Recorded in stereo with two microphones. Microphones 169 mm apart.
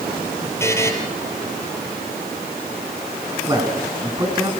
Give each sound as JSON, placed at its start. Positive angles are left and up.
{"t": 0.6, "sound": "a buzzer", "side_deg": 15, "distance_m": 4.0}
{"t": 3.5, "sound": "a man speaking", "side_deg": -25, "distance_m": 5.5}